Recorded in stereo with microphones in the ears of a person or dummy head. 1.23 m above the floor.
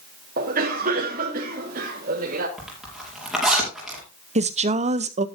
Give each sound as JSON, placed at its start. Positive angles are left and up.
{"t": 0.4, "sound": "a cough", "side_deg": -45, "distance_m": 1.4}
{"t": 2.6, "sound": "a zipper", "side_deg": -5, "distance_m": 5.5}
{"t": 4.3, "sound": "a woman speaking", "side_deg": -40, "distance_m": 0.7}